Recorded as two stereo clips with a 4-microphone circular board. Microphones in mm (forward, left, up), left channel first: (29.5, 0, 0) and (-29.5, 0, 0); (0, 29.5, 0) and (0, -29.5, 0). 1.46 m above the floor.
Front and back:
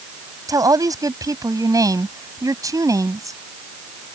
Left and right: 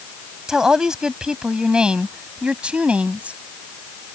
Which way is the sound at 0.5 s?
170° right.